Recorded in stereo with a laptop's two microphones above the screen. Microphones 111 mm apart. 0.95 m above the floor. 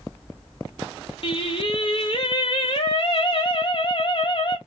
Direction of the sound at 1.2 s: 50° left (ahead or behind).